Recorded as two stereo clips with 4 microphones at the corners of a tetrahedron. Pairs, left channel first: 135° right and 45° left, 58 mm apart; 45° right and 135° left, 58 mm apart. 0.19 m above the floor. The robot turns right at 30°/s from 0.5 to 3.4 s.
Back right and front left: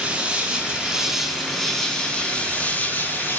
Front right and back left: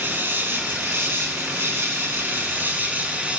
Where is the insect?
105° left, 1.7 m; by 3.4 s 170° right, 1.7 m.